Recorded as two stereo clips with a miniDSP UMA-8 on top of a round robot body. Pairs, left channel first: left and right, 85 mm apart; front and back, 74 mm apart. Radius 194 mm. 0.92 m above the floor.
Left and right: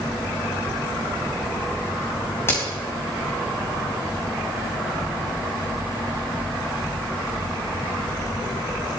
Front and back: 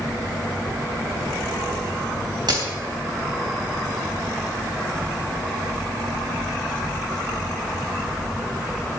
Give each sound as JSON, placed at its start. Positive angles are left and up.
{"t": 2.5, "sound": "a crack", "azimuth_deg": 150, "distance_m": 4.0}